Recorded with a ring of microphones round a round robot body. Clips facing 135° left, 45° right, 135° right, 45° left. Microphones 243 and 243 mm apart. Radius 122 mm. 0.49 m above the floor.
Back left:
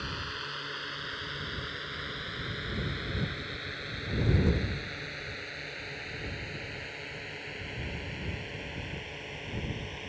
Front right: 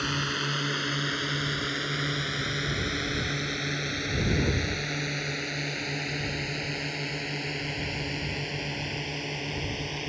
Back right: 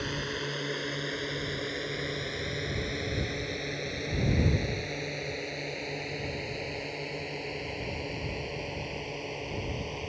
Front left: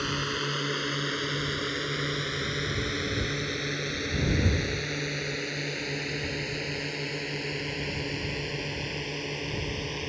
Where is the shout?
I don't hear a shout.